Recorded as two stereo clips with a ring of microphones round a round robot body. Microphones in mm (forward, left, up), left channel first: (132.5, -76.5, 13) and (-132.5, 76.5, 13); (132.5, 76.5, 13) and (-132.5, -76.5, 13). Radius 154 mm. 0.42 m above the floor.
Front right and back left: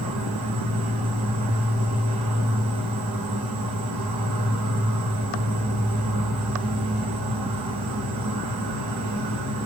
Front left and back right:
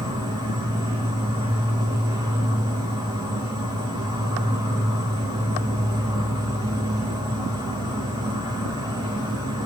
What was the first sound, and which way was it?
An insect, 135° left.